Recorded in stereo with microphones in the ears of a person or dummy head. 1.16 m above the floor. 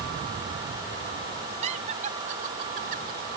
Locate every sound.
1.6 s laughter: 35° right (ahead or behind); by 3.3 s 50° right (ahead or behind)